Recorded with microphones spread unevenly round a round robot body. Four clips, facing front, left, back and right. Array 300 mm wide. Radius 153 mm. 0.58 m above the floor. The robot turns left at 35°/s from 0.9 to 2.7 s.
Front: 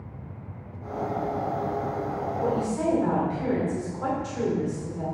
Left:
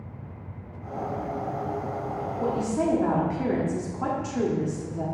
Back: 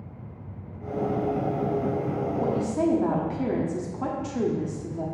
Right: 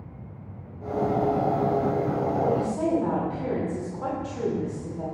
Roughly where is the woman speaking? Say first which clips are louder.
Left 3 dB, even; behind left.